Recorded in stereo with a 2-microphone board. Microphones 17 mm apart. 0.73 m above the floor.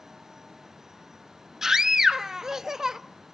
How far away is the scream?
About 0.8 m.